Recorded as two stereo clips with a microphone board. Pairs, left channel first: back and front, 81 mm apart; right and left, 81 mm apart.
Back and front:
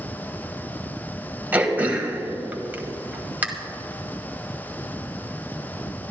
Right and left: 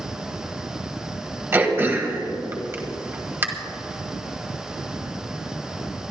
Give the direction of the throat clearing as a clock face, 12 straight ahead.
10 o'clock.